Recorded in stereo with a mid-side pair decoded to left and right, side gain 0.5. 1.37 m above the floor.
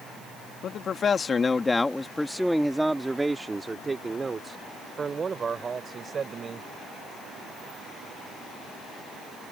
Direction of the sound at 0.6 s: 55° left.